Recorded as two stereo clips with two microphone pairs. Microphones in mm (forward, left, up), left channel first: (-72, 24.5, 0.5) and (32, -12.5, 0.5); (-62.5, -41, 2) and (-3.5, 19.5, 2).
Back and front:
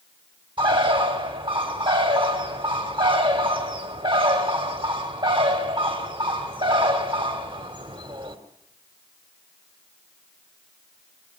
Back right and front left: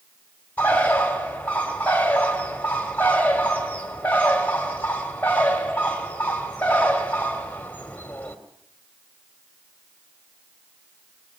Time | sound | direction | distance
0.6 | a bird | 60° right | 3 m